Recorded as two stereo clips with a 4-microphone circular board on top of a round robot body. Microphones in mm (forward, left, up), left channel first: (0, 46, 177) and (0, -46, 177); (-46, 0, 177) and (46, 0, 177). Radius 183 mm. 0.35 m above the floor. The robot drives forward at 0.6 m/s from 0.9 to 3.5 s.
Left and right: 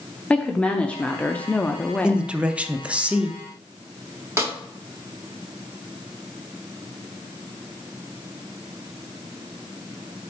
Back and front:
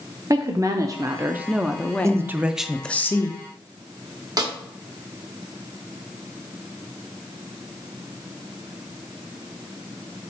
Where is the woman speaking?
20° left, 1.0 m; by 2.3 s 155° left, 0.9 m.